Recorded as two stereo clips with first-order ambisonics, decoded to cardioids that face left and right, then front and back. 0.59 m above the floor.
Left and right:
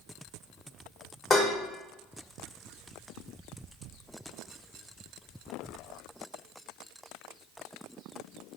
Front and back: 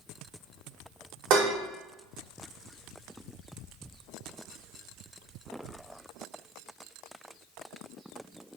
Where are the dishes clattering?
160° left, 1.0 m.